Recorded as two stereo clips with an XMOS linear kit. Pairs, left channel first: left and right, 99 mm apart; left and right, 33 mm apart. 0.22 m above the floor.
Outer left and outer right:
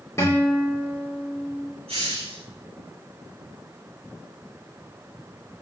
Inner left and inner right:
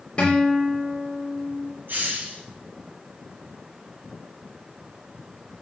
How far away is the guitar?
About 9 m.